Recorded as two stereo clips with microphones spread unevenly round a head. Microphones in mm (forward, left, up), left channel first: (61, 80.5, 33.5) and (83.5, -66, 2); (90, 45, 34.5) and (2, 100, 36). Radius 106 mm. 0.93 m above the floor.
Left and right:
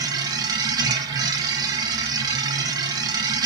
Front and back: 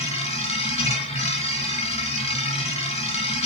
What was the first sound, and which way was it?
A machine running, 20° right.